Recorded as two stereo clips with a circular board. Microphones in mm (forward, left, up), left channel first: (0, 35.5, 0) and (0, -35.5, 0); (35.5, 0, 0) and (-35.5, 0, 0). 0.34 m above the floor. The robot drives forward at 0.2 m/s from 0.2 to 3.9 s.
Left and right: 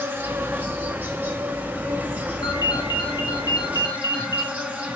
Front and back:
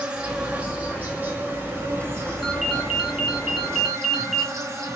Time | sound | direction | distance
0.0 | an insect | 120° right | 1.2 m
2.4 | a ringtone | 90° left | 2 m